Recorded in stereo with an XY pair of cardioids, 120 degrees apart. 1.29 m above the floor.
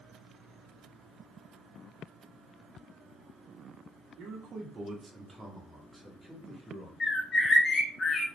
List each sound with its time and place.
4.2 s a man speaking: 60° right, 0.9 m; by 6.9 s 15° left, 1.4 m
7.0 s a bird: 35° left, 0.7 m